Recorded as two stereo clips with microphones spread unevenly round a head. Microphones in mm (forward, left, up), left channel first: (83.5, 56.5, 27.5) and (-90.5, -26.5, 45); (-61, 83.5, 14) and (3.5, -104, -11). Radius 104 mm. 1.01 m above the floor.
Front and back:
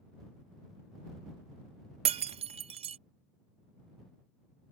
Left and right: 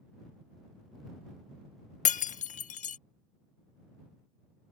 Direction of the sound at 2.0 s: 150° left.